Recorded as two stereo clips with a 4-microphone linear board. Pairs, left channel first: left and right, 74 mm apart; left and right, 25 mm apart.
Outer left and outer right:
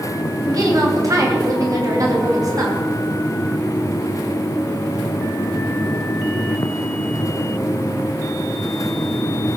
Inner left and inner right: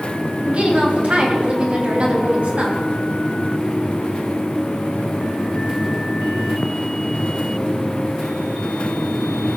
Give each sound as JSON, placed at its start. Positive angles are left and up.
{"t": 0.5, "sound": "a woman speaking", "side_deg": -50, "distance_m": 3.5}